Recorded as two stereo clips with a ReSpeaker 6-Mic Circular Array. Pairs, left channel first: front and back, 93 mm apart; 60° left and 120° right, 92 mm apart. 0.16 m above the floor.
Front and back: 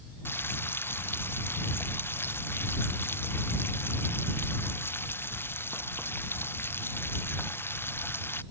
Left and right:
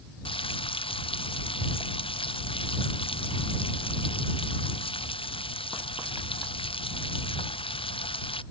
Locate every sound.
0.2 s frying: 65° left